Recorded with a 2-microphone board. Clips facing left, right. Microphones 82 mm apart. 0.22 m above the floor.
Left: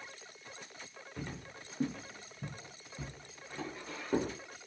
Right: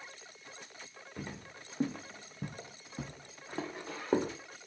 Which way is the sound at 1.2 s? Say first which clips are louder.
Even; 10° right (ahead or behind).